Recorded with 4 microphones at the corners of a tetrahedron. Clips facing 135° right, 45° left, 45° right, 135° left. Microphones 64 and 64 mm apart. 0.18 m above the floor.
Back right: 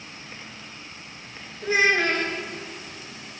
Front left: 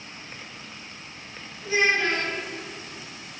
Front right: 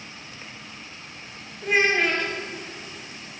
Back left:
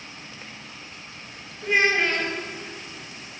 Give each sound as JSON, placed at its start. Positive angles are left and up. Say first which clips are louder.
{"t": 1.6, "sound": "a child speaking", "louder": "back right 2 dB, even", "azimuth_deg": -130, "distance_m": 1.7}